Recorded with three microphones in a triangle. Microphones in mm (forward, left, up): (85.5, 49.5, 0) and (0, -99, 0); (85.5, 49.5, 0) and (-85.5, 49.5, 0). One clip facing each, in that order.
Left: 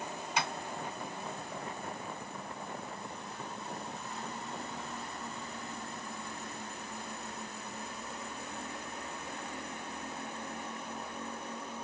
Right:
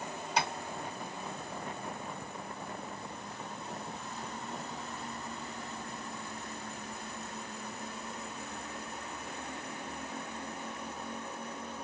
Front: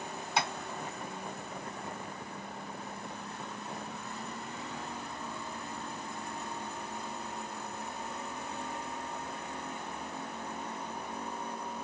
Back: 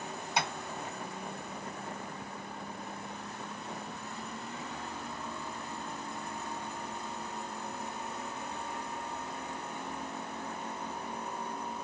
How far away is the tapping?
About 1.4 m.